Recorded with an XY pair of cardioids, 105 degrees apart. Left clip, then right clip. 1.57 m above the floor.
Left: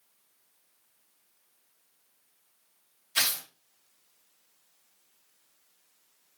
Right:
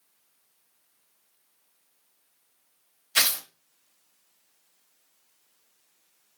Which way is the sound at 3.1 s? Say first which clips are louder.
Right 4 dB; 55° right.